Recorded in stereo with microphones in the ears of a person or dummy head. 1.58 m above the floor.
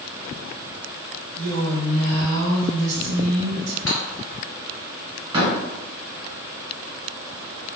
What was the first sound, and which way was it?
A woman speaking, 75° right (ahead or behind).